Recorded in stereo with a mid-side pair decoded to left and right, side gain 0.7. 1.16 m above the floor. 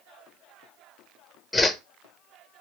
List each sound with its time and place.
1.5 s a whoosh: 15° left, 0.8 m